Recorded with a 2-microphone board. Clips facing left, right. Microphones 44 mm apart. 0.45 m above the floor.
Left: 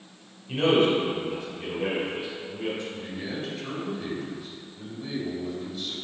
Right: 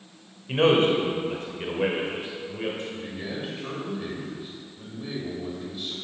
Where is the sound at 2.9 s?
15° right (ahead or behind), 1.9 m.